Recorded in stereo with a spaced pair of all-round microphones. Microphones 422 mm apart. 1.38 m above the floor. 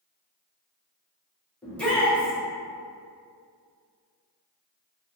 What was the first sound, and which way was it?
A shout, 5° left (ahead or behind).